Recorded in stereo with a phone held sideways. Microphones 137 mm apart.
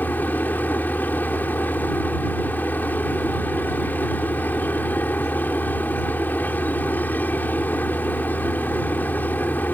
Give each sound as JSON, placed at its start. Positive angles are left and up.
{"t": 0.0, "sound": "a machine running", "side_deg": 15}